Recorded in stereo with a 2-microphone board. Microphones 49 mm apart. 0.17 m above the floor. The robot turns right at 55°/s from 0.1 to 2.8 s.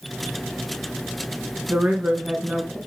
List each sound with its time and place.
1.7 s a woman speaking: 60° right, 1.8 m; by 2.8 s straight ahead, 1.8 m